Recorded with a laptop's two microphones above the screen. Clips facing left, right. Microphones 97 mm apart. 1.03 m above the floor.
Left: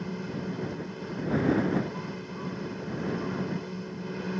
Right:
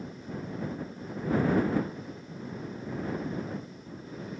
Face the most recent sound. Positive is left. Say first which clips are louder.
# left 5 dB
turn(degrees=75)  # may be behind; listen again after turning